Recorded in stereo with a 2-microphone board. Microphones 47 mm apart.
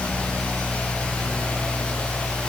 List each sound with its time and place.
Only background noise.